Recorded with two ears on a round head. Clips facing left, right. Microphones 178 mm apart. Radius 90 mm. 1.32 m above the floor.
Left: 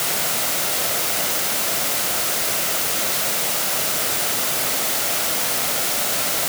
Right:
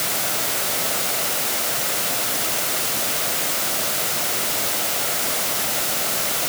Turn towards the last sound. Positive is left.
No sound to turn to.